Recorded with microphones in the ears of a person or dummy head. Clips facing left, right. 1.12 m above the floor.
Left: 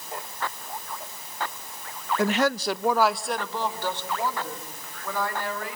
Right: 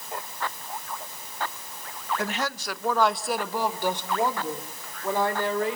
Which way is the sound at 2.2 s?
65° left (ahead or behind).